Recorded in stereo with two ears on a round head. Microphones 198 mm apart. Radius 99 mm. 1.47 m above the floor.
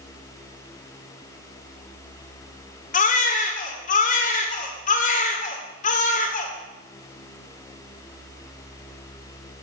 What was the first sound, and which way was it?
A baby crying, 40° left (ahead or behind).